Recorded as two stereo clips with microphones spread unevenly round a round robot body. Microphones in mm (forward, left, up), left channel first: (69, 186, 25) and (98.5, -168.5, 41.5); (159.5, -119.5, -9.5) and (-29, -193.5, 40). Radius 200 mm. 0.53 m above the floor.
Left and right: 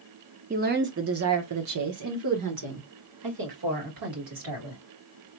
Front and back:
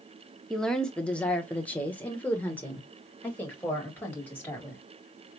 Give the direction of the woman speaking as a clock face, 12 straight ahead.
1 o'clock.